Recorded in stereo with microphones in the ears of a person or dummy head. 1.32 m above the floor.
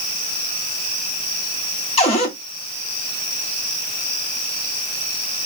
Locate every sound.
2.0 s a cupboard door: 35° left (ahead or behind), 0.8 m